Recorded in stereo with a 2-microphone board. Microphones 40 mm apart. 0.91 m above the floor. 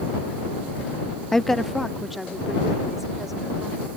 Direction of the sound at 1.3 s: 15° left (ahead or behind).